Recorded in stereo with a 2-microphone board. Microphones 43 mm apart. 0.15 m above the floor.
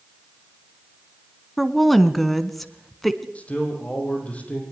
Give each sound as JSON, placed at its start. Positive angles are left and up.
{"t": 1.6, "sound": "a woman speaking", "side_deg": 5, "distance_m": 1.3}
{"t": 3.4, "sound": "a man speaking", "side_deg": 30, "distance_m": 6.5}